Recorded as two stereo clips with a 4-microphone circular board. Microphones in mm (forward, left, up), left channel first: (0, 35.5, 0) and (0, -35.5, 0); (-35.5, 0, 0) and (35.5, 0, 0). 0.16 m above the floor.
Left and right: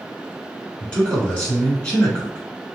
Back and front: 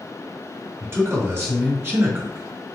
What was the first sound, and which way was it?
A man speaking, 20° left.